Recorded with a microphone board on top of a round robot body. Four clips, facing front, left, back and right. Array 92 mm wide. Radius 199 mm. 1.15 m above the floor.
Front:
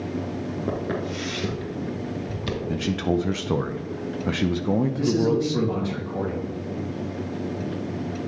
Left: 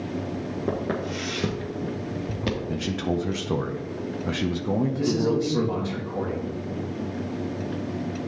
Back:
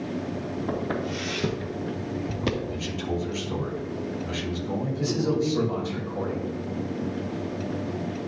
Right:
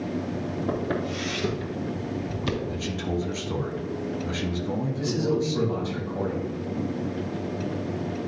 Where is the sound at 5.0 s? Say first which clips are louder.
Left 2 dB, front 4 dB; 30° left, 3 m.